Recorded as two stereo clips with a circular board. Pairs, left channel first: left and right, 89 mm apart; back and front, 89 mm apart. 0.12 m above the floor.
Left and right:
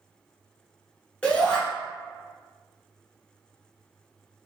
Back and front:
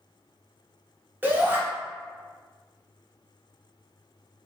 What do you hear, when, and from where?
1.2 s a shout: 30° left, 1.2 m